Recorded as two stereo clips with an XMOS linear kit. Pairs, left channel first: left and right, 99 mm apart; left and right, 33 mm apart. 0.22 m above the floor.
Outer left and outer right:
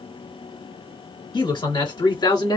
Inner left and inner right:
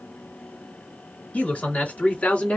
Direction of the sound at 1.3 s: 55° left (ahead or behind).